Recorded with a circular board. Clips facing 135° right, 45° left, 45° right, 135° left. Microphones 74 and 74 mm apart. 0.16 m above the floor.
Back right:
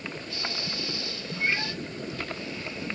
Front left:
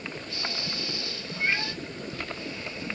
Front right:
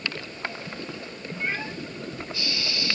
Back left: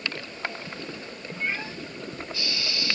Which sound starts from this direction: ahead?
A cat meowing, at 1.4 s.